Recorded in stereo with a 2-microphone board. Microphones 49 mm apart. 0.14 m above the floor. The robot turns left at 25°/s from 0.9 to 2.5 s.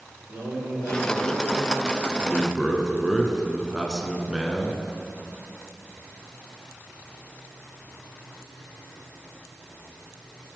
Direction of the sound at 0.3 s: 60° right (ahead or behind).